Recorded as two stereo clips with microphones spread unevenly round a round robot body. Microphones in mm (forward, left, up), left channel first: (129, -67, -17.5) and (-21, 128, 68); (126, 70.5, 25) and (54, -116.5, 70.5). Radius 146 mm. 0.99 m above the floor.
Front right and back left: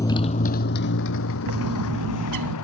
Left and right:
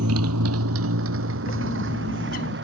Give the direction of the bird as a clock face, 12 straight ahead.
8 o'clock.